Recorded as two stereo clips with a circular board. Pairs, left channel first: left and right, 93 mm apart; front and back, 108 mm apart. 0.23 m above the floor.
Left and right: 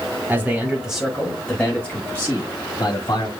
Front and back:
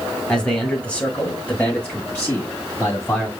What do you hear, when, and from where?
0.3 s a man speaking: 65° right, 1.3 m; by 3.3 s 70° left, 1.7 m